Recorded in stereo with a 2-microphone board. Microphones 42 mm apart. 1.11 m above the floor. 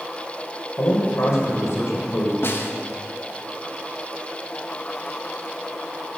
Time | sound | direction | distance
0.8 | a man speaking | 85° left | 3.5 m
2.4 | a snare drum | 60° left (ahead or behind) | 1.2 m